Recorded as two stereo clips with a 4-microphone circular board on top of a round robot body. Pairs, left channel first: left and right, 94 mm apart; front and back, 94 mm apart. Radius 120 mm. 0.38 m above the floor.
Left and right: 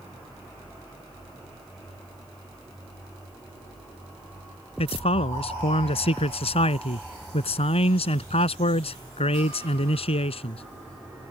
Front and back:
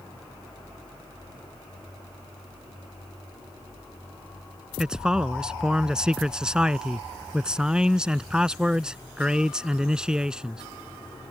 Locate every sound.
4.8 s a man speaking: 100° left